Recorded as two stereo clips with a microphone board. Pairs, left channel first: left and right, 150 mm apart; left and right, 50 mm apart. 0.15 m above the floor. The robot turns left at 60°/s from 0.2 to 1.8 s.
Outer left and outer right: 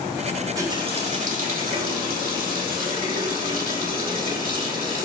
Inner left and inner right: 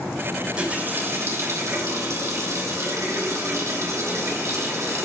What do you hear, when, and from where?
0.4 s a running tap: 10° right, 5 m; by 5.0 s 95° right, 5 m